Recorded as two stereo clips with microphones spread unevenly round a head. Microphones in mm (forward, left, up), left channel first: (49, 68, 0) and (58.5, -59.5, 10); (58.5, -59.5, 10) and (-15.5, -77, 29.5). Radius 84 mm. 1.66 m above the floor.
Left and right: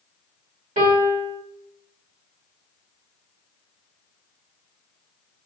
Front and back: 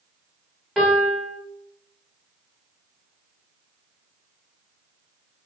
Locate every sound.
0.8 s a piano: 85° right, 1.3 m